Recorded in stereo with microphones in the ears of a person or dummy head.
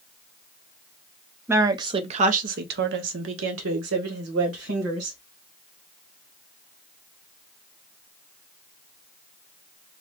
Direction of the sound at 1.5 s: 15° right (ahead or behind).